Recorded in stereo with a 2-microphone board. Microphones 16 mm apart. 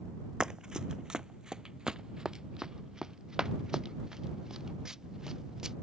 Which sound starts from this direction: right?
Running footsteps, at 0.4 s.